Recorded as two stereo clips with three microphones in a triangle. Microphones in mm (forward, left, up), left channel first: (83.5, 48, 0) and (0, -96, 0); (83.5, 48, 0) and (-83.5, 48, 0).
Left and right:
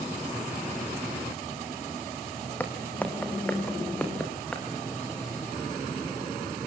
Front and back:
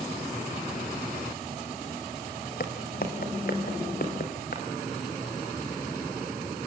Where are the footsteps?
20° right, 3.5 m.